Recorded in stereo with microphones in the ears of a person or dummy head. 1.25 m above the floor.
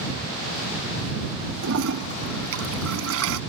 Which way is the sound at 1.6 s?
75° right (ahead or behind).